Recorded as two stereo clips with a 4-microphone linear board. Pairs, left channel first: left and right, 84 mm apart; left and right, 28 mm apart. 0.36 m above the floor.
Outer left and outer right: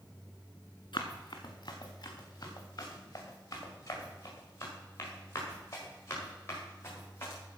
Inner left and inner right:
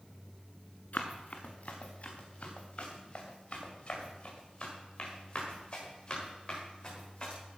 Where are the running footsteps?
60° left (ahead or behind), 2 m; by 7.4 s 30° left (ahead or behind), 8 m.